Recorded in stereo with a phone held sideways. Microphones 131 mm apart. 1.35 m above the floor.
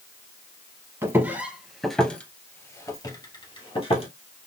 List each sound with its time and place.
1.0 s footsteps: 20° right (ahead or behind), 1.5 m; by 4.1 s 45° left (ahead or behind), 1.9 m